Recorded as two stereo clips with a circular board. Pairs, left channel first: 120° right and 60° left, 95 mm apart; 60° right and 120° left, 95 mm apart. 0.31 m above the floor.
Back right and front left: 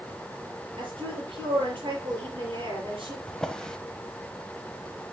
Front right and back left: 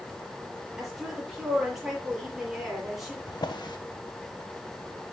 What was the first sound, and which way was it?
A woman speaking, 35° left.